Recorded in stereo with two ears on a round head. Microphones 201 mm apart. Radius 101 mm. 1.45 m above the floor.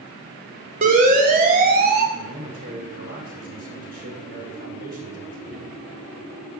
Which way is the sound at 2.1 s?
40° right (ahead or behind).